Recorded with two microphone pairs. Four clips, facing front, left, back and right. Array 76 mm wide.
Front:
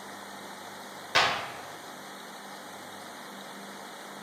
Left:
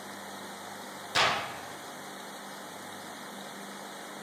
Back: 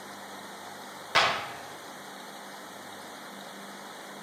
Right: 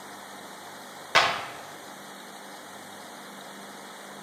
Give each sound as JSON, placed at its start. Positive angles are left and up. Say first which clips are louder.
{"t": 1.1, "sound": "a clap", "louder": "right 5 dB, back 1 dB", "azimuth_deg": -95, "distance_m": 1.4}